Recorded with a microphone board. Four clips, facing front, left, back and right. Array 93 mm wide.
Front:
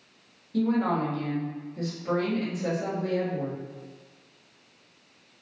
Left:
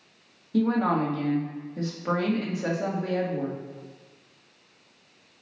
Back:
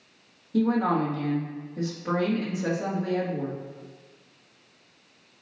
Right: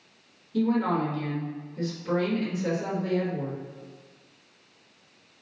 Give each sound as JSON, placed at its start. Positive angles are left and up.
{"t": 0.5, "sound": "a woman speaking", "azimuth_deg": 110, "distance_m": 2.5}